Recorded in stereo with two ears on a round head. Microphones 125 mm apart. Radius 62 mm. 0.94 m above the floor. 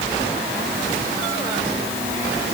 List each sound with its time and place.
Only background noise.